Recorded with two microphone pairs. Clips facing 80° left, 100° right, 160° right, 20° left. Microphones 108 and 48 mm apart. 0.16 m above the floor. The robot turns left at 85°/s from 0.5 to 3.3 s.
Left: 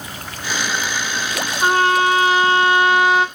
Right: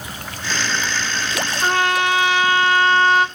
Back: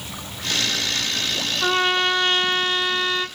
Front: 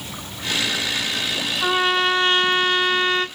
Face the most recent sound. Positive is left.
turn(degrees=-20)